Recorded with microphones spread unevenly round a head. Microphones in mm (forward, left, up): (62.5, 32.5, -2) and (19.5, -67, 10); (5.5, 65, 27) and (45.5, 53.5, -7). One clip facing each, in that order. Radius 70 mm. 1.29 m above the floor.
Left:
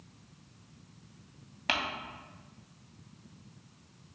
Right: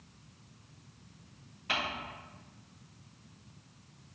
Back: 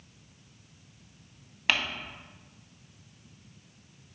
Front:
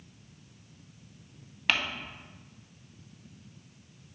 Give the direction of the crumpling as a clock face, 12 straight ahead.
9 o'clock.